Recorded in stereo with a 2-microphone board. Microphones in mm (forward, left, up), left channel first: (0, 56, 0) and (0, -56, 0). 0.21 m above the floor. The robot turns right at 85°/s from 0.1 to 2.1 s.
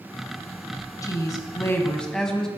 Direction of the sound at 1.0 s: 75° left.